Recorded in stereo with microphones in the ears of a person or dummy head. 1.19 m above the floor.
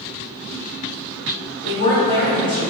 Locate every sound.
1.6 s a woman speaking: 30° left (ahead or behind), 1.8 m